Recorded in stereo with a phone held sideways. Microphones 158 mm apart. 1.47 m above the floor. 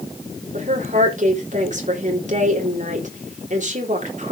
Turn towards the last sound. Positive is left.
turn(degrees=-50)  # may be behind; listen again after turning